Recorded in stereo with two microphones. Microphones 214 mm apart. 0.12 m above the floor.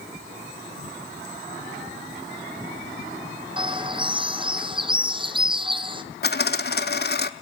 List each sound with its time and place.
3.6 s a bird: 25° right (ahead or behind), 1.0 m
6.2 s a dropped coin: 50° left (ahead or behind), 0.7 m